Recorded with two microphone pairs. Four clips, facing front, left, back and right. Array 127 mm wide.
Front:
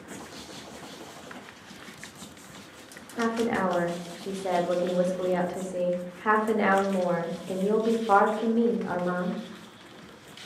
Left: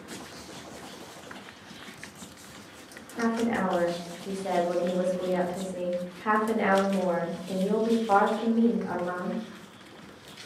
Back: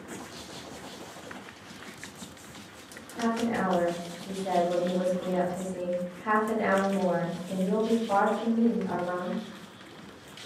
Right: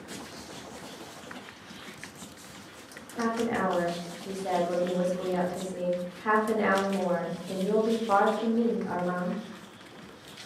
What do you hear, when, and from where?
3.2 s a woman speaking: straight ahead, 0.6 m